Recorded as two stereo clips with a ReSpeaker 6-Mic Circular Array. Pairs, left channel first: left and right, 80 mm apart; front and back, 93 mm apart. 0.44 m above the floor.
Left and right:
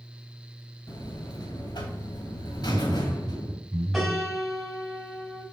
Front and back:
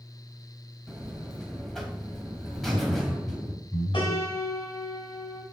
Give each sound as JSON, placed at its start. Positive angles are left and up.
{"t": 0.9, "sound": "a buzzer", "azimuth_deg": 85, "distance_m": 2.5}
{"t": 2.5, "sound": "laughter", "azimuth_deg": -35, "distance_m": 1.4}
{"t": 3.9, "sound": "a piano", "azimuth_deg": 0, "distance_m": 3.5}